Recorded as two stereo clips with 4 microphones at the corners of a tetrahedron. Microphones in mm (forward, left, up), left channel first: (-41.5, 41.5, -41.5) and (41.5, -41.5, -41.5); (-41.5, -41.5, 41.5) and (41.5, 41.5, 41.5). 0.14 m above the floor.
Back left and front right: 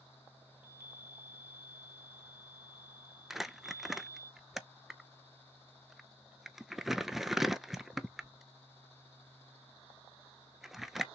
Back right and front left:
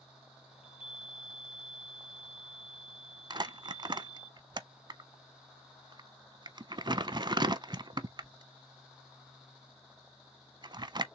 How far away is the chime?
About 2.5 m.